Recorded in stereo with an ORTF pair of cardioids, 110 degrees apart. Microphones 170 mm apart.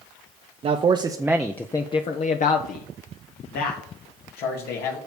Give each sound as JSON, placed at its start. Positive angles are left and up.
{"t": 0.6, "sound": "a man speaking", "azimuth_deg": -40, "distance_m": 1.1}